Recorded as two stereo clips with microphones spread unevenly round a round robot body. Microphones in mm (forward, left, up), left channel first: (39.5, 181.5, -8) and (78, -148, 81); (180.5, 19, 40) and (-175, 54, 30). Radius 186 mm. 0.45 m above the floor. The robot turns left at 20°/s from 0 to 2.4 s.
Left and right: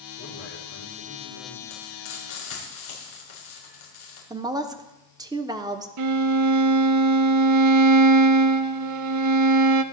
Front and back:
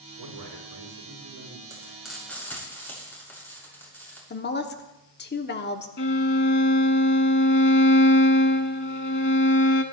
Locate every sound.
0.2 s a man speaking: 150° left, 5 m; by 1.6 s 125° left, 5 m
1.7 s frying: 95° left, 6.5 m; by 4.2 s 80° left, 6.5 m
4.3 s a woman speaking: 15° left, 1.1 m
6.0 s a violin: 65° right, 0.6 m